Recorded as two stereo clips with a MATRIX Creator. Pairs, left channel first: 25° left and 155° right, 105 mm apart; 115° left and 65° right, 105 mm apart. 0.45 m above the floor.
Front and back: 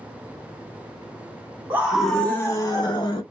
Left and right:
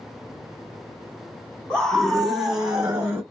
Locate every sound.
1.7 s a scream: straight behind, 0.9 m; by 3.2 s 10° left, 1.3 m